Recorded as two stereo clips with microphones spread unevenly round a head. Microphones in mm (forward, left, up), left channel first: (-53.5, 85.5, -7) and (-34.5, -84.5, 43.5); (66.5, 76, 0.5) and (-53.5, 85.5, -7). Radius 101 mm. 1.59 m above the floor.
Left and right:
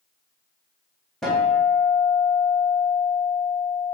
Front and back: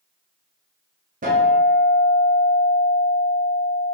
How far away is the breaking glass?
I don't hear breaking glass.